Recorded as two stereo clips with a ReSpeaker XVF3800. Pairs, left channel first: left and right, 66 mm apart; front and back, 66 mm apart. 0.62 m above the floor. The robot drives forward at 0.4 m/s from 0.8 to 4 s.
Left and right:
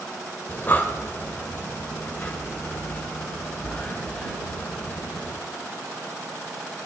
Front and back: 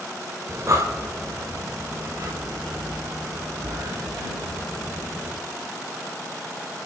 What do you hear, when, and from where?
0.5 s breathing: 145° left, 1.7 m; by 5.4 s 160° left, 3 m